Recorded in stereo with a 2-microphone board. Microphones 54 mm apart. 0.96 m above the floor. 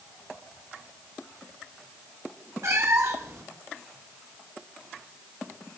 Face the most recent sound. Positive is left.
turn(degrees=-60)  # may be behind; listen again after turning